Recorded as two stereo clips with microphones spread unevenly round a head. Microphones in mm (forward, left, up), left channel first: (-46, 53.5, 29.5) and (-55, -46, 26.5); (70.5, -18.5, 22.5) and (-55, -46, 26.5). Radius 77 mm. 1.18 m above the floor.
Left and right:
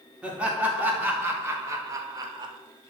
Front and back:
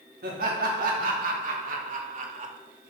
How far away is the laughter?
About 3 m.